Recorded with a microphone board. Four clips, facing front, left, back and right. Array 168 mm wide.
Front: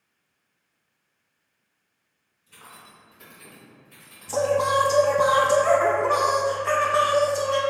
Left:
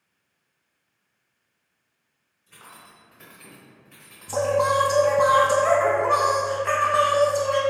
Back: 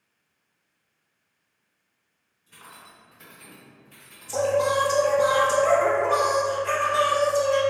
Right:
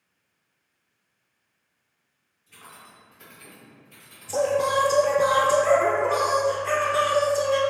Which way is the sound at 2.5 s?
100° left.